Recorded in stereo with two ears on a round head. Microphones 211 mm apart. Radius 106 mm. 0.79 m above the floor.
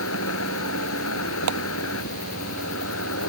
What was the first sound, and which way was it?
An insect, 65° left (ahead or behind).